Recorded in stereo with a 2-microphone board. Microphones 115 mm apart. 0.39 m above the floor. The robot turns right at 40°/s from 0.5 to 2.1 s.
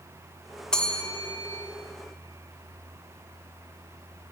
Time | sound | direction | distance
0.7 | a bell | 5° left (ahead or behind) | 0.7 m